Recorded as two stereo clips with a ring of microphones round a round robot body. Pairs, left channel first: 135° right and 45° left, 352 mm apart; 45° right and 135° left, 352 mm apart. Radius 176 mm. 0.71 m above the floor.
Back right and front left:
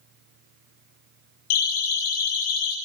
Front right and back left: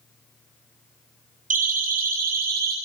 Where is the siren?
155° right, 8.5 m; by 2.8 s 160° right, 9 m.